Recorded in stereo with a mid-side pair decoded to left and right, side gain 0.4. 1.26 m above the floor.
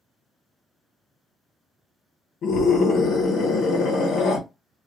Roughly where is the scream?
Ahead left.